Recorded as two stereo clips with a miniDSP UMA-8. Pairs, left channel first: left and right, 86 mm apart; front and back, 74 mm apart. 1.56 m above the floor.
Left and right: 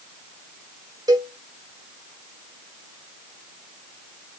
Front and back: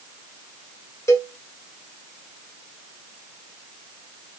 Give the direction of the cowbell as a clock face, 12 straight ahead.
2 o'clock.